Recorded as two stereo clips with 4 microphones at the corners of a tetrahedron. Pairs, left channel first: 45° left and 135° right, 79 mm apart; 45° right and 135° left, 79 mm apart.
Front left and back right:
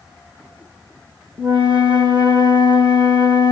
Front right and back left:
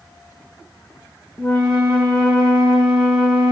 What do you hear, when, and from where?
1.4 s a flute: 125° right, 2.5 m